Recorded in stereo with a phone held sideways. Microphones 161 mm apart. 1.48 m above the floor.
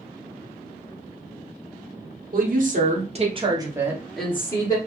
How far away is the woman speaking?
About 1.1 m.